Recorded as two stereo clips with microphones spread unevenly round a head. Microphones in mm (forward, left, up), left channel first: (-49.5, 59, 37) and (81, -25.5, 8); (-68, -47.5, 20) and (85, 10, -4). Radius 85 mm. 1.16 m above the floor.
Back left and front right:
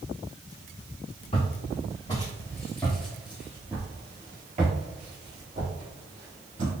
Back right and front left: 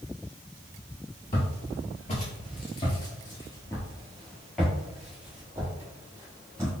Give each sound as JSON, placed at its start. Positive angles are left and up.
{"t": 1.3, "sound": "footsteps", "azimuth_deg": 175, "distance_m": 1.8}